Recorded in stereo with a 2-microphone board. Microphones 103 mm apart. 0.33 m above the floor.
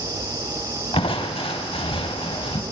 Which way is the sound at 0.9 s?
60° left (ahead or behind).